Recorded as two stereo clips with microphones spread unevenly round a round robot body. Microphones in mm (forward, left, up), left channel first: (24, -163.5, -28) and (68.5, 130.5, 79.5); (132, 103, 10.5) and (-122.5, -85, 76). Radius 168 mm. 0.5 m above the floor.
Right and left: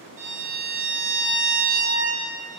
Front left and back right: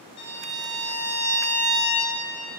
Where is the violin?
5° right, 3.5 m.